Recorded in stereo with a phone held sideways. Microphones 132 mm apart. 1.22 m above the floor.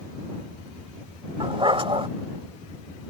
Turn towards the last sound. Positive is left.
turn(degrees=-40)  # may be behind; listen again after turning